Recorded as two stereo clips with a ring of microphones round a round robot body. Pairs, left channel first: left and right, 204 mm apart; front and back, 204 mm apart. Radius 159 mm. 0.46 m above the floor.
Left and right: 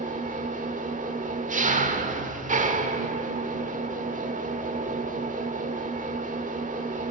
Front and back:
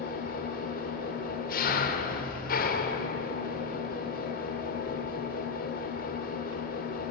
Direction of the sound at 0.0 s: 40° right.